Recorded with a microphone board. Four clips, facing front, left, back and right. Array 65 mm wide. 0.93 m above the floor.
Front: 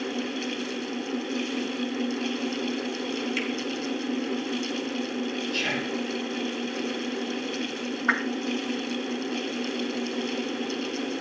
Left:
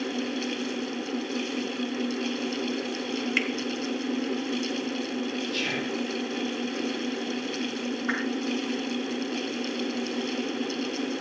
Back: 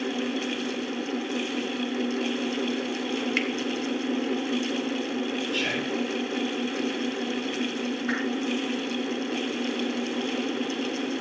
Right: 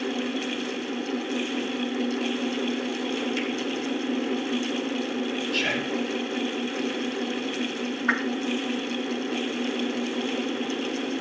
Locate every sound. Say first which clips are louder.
3.4 s a finger snap: left 1 dB, back 3 dB; 140° left, 1.9 m
5.5 s whispering: right 3 dB, back 1 dB; 105° right, 4 m
8.1 s a whoosh: right 5 dB, front 6 dB; 50° right, 2.5 m